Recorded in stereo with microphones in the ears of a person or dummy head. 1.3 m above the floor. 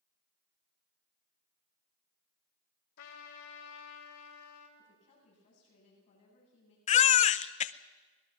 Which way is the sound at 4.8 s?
40° left (ahead or behind).